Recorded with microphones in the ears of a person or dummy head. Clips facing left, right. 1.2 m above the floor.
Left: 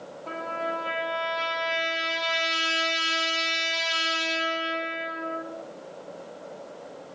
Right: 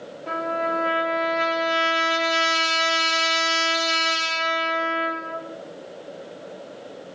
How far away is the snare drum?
No snare drum in this recording.